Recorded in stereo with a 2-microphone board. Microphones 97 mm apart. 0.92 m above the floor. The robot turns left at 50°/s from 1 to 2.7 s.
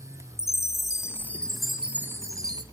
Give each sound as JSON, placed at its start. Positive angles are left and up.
{"t": 0.4, "sound": "a chime", "azimuth_deg": 30, "distance_m": 0.7}